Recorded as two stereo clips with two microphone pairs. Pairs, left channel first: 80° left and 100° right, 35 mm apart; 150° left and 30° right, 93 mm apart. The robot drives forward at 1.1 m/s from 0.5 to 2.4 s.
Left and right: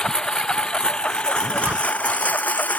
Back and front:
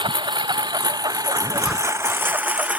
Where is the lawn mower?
5° left; by 2.8 s 45° left.